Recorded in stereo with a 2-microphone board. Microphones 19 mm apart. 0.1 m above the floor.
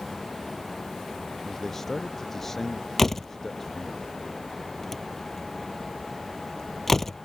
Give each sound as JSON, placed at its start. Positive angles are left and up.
{"t": 1.4, "sound": "a man speaking", "side_deg": 15}
{"t": 3.0, "sound": "a door slam", "side_deg": 15}